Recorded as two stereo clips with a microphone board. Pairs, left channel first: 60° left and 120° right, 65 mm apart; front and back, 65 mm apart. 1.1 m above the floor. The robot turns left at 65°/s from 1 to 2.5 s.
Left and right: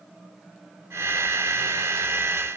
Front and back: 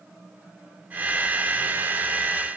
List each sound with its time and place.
Only background noise.